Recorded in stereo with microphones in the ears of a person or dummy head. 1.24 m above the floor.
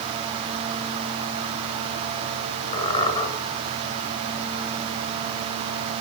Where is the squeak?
35° left (ahead or behind), 1.9 m.